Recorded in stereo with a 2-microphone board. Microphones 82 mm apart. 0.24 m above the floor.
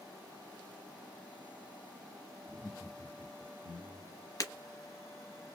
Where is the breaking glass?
45° left (ahead or behind), 1.0 m.